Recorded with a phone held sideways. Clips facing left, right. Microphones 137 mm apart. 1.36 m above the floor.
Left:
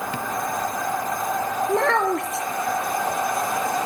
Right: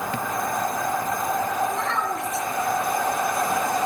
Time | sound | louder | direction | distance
1.7 | a child speaking | left 6 dB | 65° left (ahead or behind) | 0.6 m